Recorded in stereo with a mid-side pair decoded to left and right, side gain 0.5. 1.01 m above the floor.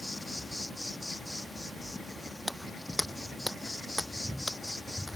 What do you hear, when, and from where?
0.0 s an insect: 10° left
2.5 s footsteps: straight ahead